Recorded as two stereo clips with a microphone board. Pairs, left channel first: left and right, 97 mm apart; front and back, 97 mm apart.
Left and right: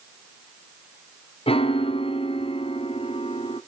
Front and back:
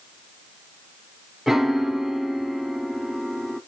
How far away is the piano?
About 0.7 m.